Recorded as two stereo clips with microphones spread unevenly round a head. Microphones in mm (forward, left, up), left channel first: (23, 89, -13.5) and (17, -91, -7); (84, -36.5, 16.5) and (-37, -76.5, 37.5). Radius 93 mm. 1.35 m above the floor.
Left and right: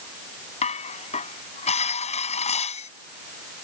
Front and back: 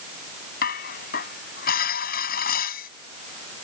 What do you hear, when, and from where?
0.6 s dishes clattering: 35° left